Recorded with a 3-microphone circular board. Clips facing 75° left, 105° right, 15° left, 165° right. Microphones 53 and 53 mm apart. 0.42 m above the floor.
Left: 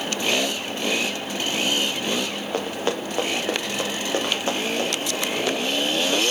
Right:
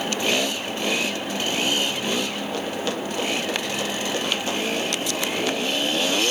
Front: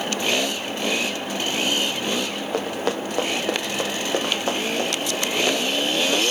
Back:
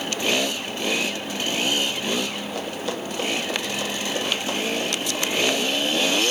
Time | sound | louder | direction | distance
2.5 | running footsteps | left 4 dB, front 7 dB | 15° left | 3.5 m